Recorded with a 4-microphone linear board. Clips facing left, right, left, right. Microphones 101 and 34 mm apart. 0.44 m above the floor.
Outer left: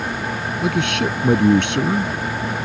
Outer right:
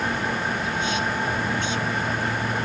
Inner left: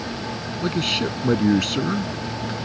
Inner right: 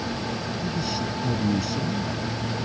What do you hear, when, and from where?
0.6 s a man speaking: 65° left (ahead or behind)